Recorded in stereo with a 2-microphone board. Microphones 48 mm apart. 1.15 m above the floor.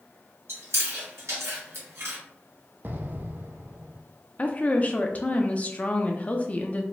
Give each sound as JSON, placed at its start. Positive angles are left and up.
{"t": 0.5, "sound": "chewing", "side_deg": -70, "distance_m": 2.0}
{"t": 2.8, "sound": "an explosion", "side_deg": -40, "distance_m": 0.5}
{"t": 4.4, "sound": "a woman speaking", "side_deg": 30, "distance_m": 0.6}